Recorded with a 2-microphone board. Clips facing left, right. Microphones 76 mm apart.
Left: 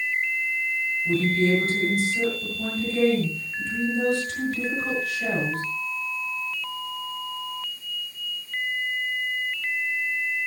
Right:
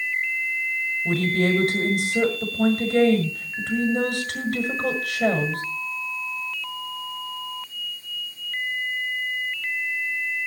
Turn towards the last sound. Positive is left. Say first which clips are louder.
# even
turn(degrees=-70)  # may be behind; listen again after turning